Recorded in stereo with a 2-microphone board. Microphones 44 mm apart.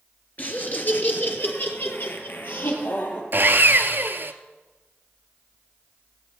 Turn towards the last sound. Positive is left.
turn(degrees=-50)  # may be behind; listen again after turning